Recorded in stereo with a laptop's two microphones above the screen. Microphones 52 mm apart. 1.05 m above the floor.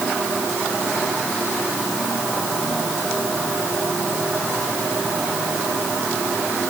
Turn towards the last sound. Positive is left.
No sound to turn to.